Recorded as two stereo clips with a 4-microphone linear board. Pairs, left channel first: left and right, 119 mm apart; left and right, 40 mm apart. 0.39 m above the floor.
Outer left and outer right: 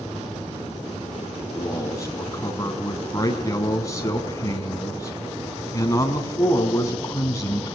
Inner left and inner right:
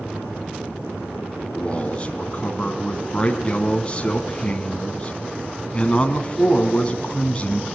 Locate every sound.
1.5 s a man speaking: 25° left (ahead or behind), 4 m